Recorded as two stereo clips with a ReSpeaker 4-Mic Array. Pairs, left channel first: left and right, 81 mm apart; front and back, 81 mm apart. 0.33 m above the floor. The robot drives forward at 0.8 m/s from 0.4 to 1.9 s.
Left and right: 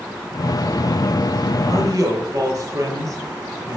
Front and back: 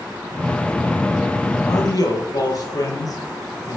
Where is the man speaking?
40° right, 8 m.